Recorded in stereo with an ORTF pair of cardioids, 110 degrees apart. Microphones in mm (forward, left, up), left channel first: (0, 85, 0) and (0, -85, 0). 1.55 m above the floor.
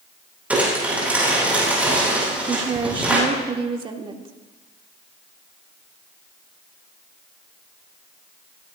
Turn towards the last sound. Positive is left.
turn(degrees=-30)